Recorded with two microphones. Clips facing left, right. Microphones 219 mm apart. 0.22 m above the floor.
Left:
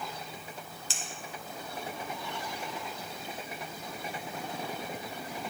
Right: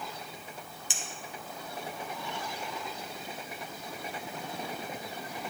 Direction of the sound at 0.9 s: 15° right (ahead or behind).